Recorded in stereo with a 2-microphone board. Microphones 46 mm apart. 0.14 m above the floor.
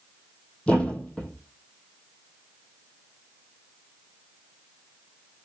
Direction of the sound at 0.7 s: 25° left (ahead or behind).